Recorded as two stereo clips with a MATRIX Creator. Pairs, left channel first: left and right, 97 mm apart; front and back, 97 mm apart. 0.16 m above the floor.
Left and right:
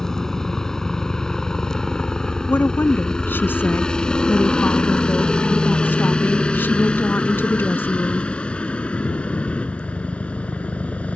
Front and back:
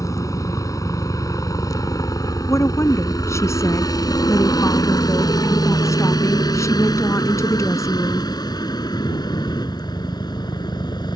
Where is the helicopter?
10° left; by 11.2 s 20° left.